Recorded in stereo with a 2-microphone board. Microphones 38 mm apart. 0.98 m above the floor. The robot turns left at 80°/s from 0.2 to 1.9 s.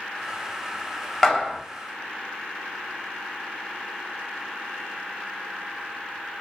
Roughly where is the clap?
Centre.